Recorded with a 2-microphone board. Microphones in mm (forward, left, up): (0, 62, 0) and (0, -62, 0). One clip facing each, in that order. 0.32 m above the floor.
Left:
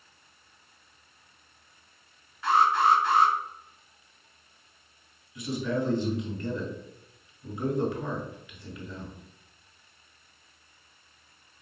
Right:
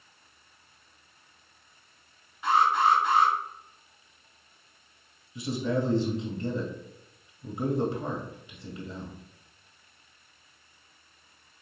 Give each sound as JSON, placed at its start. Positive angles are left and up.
{"t": 2.4, "sound": "an alarm", "side_deg": -15, "distance_m": 2.0}
{"t": 5.3, "sound": "a man speaking", "side_deg": -25, "distance_m": 1.4}